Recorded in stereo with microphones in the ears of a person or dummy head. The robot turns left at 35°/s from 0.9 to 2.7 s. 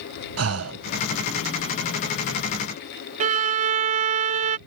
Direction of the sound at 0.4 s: 75° right (ahead or behind).